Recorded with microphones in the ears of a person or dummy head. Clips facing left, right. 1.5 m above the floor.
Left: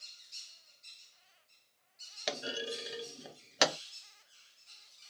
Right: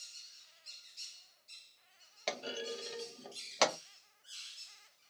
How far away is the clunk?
About 0.6 m.